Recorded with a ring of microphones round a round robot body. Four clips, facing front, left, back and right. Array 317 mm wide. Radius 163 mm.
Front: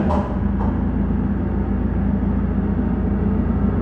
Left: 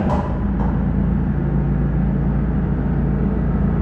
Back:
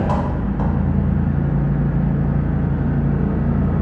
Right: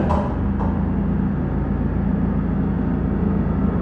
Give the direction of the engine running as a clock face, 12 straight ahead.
6 o'clock.